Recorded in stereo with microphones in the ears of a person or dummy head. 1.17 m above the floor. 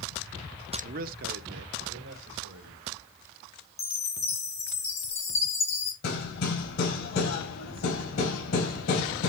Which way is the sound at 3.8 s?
20° left (ahead or behind).